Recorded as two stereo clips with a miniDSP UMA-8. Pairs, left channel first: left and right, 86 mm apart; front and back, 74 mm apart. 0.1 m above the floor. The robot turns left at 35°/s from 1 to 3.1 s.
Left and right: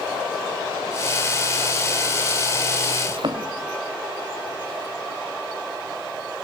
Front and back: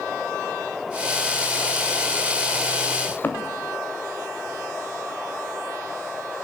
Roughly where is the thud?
Ahead right.